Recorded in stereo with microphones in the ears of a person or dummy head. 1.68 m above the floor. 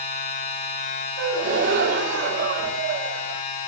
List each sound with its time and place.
0.0 s a machine running: 35° left (ahead or behind), 5 m
1.2 s a gasp: 60° right (ahead or behind), 2.5 m